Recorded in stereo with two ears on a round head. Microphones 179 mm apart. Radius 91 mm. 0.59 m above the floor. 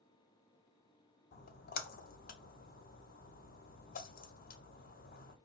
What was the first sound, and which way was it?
A splash, 45° left (ahead or behind).